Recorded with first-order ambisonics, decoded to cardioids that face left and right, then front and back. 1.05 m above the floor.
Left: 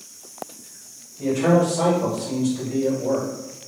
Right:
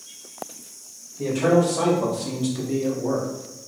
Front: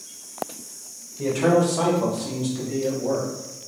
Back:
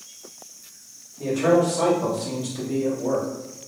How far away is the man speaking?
About 1.2 m.